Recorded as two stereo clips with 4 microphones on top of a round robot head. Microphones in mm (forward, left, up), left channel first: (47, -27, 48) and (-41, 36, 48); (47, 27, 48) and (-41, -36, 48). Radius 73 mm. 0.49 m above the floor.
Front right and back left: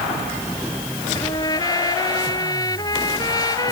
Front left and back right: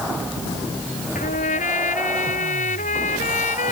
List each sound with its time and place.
1.1 s a trumpet: 25° left